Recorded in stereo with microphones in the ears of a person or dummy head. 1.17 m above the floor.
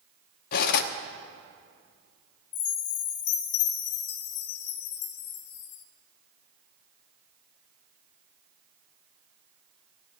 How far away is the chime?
About 1.2 m.